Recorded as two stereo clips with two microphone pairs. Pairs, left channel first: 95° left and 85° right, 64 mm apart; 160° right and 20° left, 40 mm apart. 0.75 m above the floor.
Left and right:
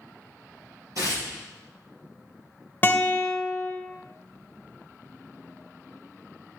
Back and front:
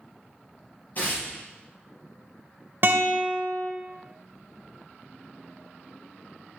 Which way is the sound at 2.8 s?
35° left.